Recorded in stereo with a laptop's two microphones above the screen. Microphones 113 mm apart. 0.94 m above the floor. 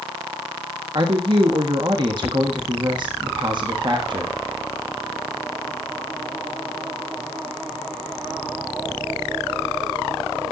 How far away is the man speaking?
About 1.2 m.